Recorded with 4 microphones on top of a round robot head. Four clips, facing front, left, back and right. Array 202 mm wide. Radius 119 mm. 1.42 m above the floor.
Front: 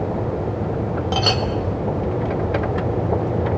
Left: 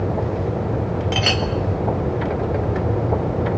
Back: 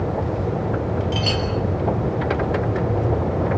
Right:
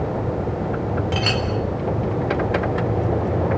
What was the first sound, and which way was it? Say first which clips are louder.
A clink: left 1 dB, front 3 dB; 25° left.